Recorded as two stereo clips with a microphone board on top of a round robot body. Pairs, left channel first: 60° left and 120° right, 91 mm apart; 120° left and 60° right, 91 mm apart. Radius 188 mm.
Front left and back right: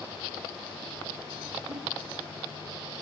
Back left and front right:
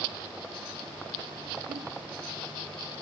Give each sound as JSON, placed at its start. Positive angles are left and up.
{"t": 1.7, "sound": "a giggle", "azimuth_deg": -70, "distance_m": 6.5}